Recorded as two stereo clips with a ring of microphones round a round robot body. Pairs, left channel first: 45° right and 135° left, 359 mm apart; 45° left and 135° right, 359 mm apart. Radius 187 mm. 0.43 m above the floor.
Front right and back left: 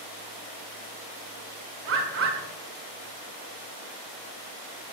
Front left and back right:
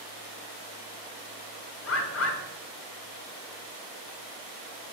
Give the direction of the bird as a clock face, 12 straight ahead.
9 o'clock.